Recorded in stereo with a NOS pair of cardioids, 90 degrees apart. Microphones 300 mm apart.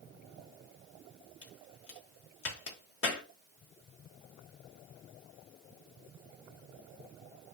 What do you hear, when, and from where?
1.4 s a crack: 50° left, 1.8 m